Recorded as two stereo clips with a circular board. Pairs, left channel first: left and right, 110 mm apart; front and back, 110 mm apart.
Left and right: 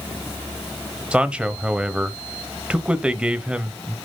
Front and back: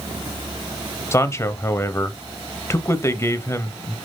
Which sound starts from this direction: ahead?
A man speaking, at 1.1 s.